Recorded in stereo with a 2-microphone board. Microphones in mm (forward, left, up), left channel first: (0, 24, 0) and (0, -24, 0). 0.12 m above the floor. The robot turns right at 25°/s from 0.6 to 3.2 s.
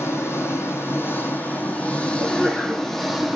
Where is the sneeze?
35° left (ahead or behind), 6 m; by 2.9 s 20° left (ahead or behind), 6 m.